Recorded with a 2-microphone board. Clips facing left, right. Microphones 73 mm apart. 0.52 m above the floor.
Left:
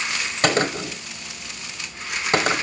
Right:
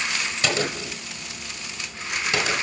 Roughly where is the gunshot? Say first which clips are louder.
Left 6 dB; left.